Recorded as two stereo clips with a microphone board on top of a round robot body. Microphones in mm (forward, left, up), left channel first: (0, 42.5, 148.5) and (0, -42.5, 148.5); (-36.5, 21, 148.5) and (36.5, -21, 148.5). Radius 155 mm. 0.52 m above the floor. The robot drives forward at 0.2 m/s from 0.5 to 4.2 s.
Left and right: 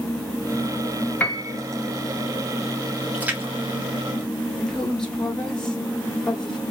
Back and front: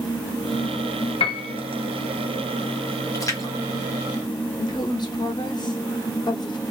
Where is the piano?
165° left, 0.5 m.